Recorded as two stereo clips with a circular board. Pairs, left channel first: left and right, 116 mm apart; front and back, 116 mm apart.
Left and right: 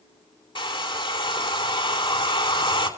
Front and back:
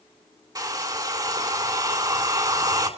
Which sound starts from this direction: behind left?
A hair dryer, at 0.6 s.